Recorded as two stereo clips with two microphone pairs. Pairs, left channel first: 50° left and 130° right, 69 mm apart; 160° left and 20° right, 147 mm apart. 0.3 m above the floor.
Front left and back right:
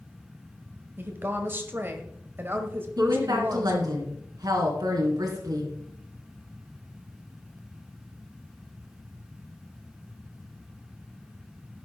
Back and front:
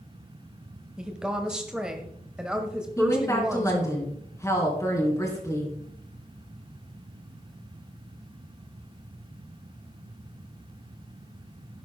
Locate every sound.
1.0 s a woman speaking: 105° right, 1.1 m
3.0 s a woman speaking: 130° right, 3.5 m